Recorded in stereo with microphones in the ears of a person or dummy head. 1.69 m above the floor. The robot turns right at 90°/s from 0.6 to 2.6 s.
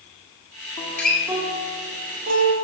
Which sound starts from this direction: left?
A guitar, at 0.8 s.